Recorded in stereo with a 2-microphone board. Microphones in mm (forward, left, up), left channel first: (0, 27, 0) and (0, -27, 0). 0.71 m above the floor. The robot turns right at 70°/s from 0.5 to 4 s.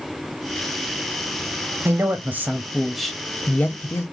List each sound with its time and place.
1.9 s a man speaking: 80° right, 0.6 m; by 4.0 s 70° left, 0.6 m